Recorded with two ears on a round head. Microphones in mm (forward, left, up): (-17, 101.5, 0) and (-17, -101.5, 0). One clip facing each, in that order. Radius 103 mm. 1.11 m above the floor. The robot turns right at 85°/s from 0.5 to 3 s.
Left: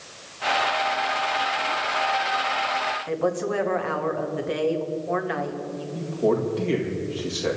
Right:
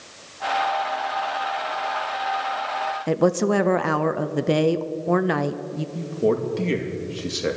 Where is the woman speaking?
60° right (ahead or behind), 0.8 m.